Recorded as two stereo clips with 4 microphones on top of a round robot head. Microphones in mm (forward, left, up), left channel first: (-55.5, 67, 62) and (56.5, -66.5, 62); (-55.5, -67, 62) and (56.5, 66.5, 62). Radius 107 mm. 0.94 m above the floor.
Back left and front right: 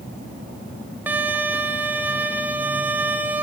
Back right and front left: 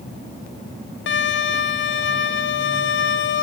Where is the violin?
130° right, 1.5 m.